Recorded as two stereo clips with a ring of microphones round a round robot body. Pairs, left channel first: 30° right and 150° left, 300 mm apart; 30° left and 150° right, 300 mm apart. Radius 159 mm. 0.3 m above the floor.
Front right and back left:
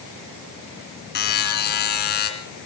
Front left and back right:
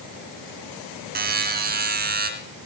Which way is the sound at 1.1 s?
90° right.